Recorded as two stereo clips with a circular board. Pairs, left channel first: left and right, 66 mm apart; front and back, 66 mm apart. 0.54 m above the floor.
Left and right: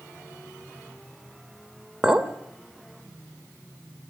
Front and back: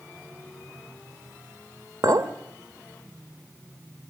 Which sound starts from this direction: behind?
A clink, at 2.0 s.